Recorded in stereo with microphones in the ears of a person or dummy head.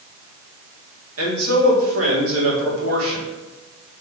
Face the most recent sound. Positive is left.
turn(degrees=-80)